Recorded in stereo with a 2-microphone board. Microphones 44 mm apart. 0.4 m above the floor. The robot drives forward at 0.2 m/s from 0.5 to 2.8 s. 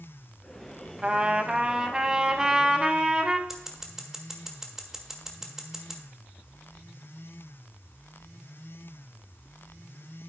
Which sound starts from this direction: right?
A trumpet, at 1.0 s.